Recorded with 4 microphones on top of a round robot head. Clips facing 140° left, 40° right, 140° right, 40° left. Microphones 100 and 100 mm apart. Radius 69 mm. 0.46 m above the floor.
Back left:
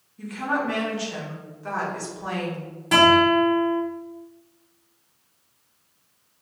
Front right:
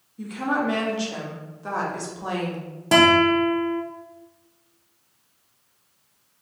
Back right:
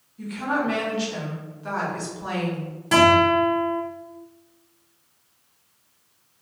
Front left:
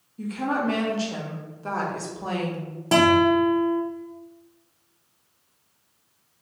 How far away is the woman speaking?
About 1.1 m.